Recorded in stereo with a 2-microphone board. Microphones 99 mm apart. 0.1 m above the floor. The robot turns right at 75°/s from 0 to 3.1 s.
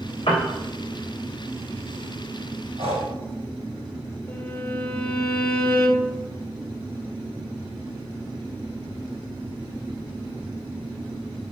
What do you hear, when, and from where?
0.3 s a piano: 70° left (ahead or behind), 2.5 m; by 0.5 s 55° left (ahead or behind), 2.5 m
2.8 s breathing: 80° right, 2.5 m; by 3.1 s 65° right (ahead or behind), 2.5 m
4.3 s a violin: 25° left (ahead or behind), 1.3 m